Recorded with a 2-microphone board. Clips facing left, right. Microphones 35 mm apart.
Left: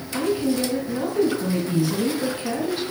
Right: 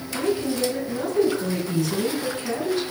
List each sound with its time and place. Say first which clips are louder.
0.1 s a woman speaking: left 2 dB; 20° left (ahead or behind), 4.5 m